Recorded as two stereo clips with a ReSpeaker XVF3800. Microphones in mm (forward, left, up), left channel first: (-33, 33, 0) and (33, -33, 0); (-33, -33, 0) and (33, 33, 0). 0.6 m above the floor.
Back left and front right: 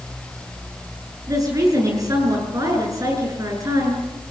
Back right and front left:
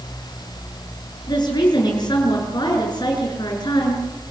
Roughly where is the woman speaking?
Right.